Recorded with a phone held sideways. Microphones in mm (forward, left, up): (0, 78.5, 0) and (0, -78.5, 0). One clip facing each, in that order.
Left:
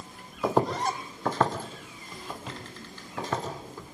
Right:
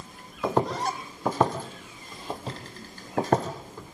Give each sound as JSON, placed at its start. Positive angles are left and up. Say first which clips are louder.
{"t": 0.4, "sound": "footsteps", "louder": "even", "side_deg": 5, "distance_m": 2.5}